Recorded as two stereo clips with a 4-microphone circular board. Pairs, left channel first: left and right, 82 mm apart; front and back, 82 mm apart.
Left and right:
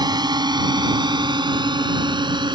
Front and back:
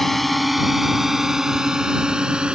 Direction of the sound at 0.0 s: 90° right.